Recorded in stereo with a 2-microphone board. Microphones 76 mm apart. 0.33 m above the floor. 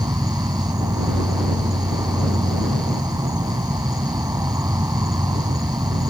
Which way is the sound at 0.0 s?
50° right (ahead or behind).